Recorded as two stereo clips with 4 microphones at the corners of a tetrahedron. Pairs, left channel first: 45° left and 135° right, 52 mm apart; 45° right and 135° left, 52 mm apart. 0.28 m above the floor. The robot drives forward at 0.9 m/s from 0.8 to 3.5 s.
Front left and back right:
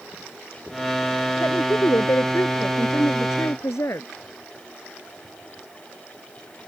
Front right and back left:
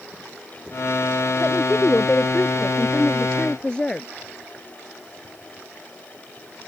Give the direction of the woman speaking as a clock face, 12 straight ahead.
11 o'clock.